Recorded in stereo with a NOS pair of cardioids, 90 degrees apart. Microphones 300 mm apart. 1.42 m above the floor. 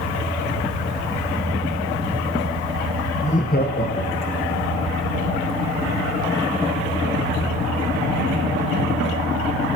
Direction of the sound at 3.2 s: 25° left.